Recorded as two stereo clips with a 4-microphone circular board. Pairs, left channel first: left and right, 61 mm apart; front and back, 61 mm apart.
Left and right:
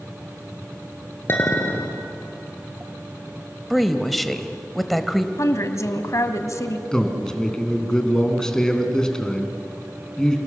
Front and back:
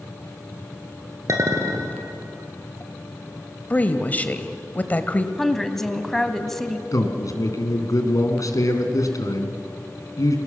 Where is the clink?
145° left, 2.5 m.